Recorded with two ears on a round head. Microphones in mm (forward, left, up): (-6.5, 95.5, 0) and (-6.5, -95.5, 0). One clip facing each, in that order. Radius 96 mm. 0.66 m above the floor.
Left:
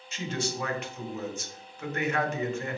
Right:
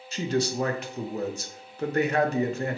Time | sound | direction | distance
0.1 | a man speaking | 30° right (ahead or behind) | 0.6 m